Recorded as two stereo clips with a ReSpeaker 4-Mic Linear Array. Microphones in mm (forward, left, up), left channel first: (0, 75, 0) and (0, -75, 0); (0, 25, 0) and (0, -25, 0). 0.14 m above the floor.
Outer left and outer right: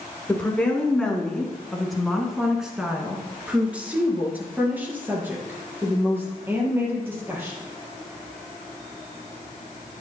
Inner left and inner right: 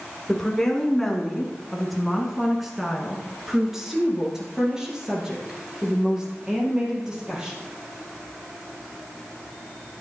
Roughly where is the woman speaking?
Centre.